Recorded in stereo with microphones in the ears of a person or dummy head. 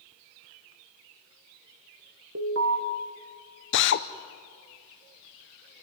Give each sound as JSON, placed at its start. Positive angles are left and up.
{"t": 2.4, "sound": "an alarm", "side_deg": -55, "distance_m": 1.7}
{"t": 3.7, "sound": "a drill", "side_deg": 55, "distance_m": 0.8}